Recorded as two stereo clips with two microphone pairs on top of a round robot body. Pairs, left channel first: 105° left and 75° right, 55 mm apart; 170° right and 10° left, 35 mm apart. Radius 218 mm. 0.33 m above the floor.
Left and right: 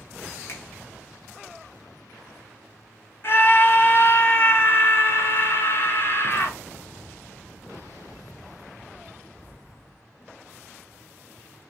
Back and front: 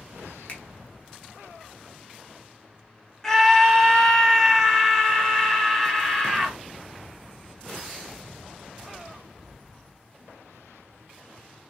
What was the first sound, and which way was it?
A finger snap, 135° left.